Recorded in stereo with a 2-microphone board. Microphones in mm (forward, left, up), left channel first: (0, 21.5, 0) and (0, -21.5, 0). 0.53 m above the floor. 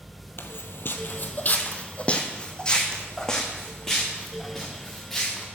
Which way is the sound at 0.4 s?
60° left (ahead or behind).